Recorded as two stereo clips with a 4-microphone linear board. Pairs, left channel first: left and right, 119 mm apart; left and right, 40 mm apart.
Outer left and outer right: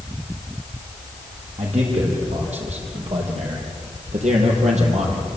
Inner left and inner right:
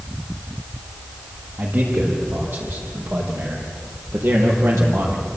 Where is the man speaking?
65° right (ahead or behind), 7.5 m; by 5.3 s 75° right (ahead or behind), 5.5 m.